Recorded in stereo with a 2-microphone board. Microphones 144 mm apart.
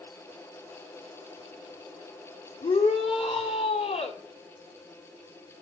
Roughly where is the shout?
Left.